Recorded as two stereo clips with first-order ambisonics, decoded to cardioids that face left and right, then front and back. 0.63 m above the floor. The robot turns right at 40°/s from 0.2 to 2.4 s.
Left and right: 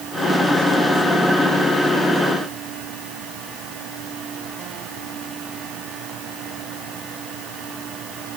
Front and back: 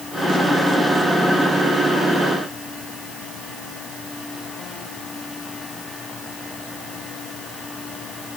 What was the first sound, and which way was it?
Only background noise.